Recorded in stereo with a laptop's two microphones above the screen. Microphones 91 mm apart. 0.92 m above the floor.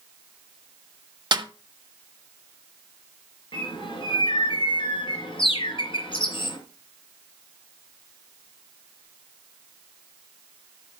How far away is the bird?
About 3.5 m.